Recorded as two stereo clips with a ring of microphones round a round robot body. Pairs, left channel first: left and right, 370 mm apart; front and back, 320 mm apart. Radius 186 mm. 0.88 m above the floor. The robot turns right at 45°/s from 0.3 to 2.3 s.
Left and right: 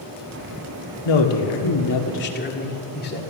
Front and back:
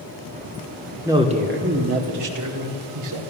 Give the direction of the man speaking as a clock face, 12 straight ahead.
9 o'clock.